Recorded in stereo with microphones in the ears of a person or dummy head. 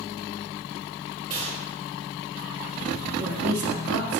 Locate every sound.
1.3 s a gunshot: 40° right (ahead or behind), 4 m
3.2 s a woman speaking: 80° right, 2 m